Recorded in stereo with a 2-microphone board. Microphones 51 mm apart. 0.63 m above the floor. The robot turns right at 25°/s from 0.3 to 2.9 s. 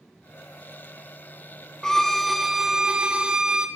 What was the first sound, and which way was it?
A violin, 10° left (ahead or behind).